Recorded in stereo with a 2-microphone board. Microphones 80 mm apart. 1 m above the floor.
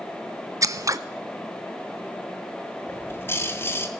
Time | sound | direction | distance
0.6 | scissors | 45° right (ahead or behind) | 0.6 m
2.9 | a bird | 30° left (ahead or behind) | 1.5 m